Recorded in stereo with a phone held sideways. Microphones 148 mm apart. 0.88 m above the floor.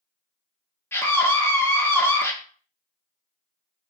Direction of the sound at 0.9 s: 15° left (ahead or behind).